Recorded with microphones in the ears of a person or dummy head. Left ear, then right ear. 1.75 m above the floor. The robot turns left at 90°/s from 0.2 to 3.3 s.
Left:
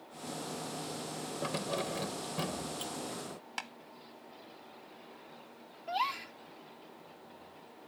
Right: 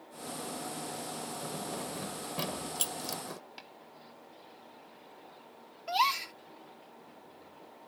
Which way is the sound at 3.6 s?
50° left (ahead or behind).